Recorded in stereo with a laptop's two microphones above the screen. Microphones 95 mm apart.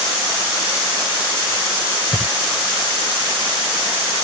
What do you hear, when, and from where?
2.1 s breathing: 5° left (ahead or behind)